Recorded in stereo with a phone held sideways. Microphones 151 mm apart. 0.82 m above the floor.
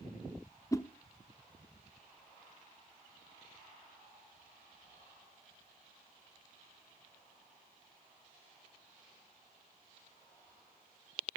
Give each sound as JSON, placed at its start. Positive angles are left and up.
{"t": 0.7, "sound": "a whoosh", "side_deg": 20, "distance_m": 0.6}